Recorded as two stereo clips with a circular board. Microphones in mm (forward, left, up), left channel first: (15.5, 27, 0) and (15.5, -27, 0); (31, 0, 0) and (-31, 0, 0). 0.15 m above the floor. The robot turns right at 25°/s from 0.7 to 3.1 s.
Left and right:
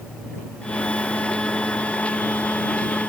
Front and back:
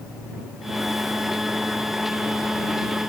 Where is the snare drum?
I don't hear a snare drum.